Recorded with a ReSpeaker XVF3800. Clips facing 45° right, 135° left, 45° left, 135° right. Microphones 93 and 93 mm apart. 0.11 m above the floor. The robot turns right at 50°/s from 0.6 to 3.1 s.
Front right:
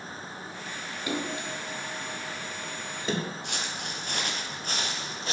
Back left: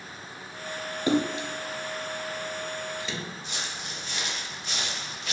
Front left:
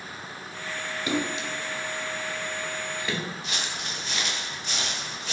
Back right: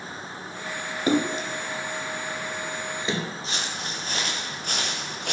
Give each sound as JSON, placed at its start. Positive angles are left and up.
{"t": 1.1, "sound": "a splash", "azimuth_deg": -175, "distance_m": 0.7}
{"t": 3.4, "sound": "footsteps", "azimuth_deg": -75, "distance_m": 4.0}